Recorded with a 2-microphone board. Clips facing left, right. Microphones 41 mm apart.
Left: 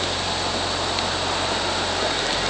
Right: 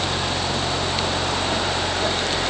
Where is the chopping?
No chopping in this recording.